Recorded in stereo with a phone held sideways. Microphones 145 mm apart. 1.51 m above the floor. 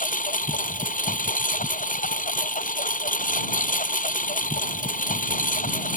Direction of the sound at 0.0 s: 65° left (ahead or behind).